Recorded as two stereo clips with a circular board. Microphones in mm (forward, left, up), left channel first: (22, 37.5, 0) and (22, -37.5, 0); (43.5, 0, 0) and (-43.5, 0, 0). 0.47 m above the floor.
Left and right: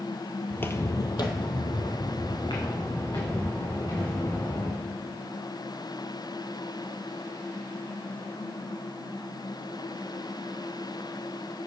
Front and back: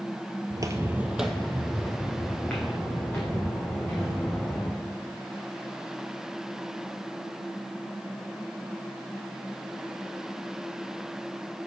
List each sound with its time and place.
0.5 s footsteps: 160° left, 0.6 m; by 4.8 s 65° left, 5 m